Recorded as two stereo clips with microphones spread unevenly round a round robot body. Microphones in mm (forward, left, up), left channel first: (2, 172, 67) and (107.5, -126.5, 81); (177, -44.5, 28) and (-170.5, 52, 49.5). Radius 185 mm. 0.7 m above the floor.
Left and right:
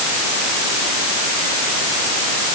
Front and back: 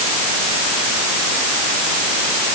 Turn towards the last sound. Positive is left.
No sound to turn to.